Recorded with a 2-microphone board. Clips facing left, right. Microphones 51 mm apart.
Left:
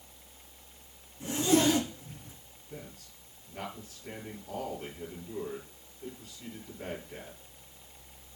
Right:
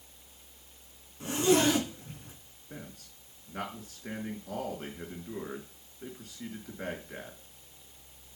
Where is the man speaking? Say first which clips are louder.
Even; 80° right, 5 m.